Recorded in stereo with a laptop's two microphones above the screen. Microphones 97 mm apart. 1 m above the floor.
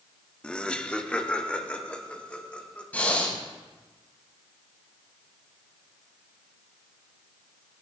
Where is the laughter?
10° left (ahead or behind), 1.0 m; by 2.8 s 15° left (ahead or behind), 3.5 m.